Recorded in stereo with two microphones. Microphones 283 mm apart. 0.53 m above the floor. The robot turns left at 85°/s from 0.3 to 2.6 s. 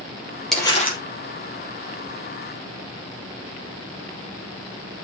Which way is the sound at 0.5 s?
Straight behind.